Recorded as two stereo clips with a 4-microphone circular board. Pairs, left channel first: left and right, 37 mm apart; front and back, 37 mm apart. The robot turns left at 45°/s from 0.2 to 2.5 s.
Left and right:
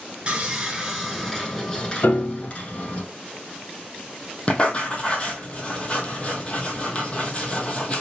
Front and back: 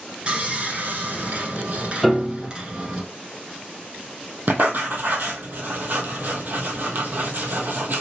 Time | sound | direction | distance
0.3 | sawing | 140° right | 1.1 m
2.0 | a piano | 80° left | 0.7 m
4.5 | writing | 145° left | 0.9 m